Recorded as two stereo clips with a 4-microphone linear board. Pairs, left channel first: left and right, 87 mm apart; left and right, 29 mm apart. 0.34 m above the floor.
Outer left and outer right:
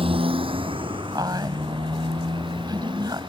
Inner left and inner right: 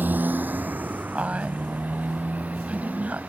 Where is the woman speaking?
50° right (ahead or behind).